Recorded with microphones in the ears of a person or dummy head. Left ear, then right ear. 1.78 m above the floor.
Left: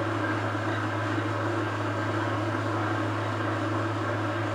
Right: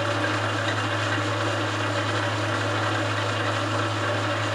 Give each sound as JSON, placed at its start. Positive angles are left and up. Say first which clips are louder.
{"t": 0.0, "sound": "an engine running", "louder": "right 4 dB", "side_deg": -45, "distance_m": 3.5}